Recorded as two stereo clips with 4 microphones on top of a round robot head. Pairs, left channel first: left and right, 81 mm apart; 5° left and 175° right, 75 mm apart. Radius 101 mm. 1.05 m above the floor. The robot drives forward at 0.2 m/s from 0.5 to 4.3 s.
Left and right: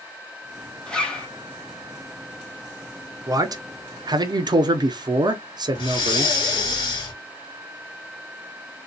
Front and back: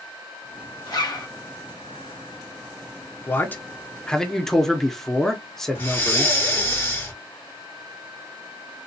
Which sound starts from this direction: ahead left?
Breathing, at 5.8 s.